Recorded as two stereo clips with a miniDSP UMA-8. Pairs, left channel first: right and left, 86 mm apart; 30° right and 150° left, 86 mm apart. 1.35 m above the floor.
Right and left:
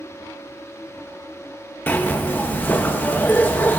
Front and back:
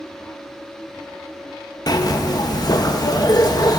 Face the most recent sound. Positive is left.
turn(degrees=-30)